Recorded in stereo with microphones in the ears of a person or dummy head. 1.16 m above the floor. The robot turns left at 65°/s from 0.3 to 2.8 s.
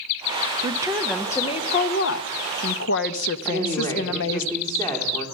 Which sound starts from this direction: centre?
A woman speaking, at 3.5 s.